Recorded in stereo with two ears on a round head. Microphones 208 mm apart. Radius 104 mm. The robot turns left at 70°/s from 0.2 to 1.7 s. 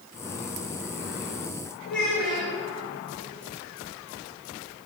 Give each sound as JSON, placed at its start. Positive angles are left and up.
{"t": 1.9, "sound": "a child speaking", "side_deg": 55, "distance_m": 2.0}